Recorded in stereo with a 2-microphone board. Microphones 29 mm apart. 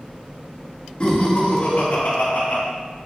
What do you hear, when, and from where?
1.0 s laughter: 35° left (ahead or behind), 3 m; by 2.6 s 55° left (ahead or behind), 3 m